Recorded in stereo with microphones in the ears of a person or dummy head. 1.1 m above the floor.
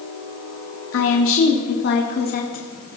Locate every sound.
0.9 s a woman speaking: 65° left (ahead or behind), 1.8 m; by 2.7 s 35° left (ahead or behind), 1.8 m